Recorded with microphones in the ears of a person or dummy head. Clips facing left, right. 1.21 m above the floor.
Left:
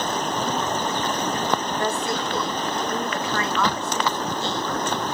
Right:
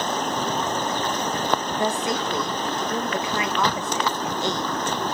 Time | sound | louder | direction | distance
1.8 | a woman speaking | right 1 dB | 15° right (ahead or behind) | 1.3 m